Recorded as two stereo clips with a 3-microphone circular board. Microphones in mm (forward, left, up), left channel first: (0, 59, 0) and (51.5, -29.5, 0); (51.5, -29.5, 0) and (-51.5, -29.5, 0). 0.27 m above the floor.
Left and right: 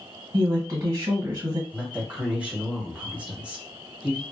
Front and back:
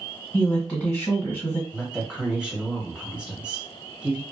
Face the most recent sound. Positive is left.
turn(degrees=-120)